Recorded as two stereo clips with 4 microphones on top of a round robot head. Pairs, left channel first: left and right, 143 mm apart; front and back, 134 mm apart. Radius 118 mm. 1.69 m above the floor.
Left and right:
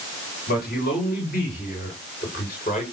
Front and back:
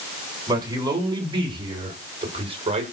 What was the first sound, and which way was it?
A man speaking, 120° left.